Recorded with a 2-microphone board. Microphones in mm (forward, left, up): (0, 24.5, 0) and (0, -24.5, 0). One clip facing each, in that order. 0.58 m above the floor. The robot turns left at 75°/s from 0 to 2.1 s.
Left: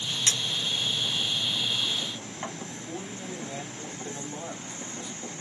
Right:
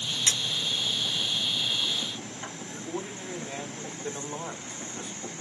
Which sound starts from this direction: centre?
A clink, at 0.3 s.